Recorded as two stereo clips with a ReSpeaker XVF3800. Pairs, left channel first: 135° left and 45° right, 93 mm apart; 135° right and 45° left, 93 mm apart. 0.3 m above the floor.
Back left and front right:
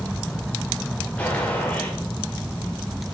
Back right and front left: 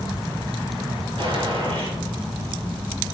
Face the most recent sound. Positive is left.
turn(degrees=60)